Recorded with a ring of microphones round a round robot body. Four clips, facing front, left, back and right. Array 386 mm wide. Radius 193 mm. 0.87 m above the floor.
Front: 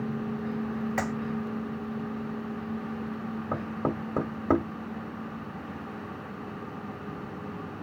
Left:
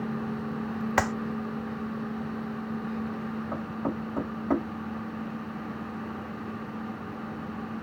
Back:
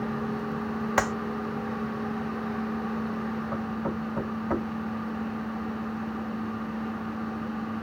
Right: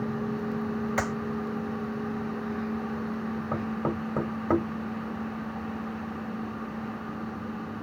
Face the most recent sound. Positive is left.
turn(degrees=-25)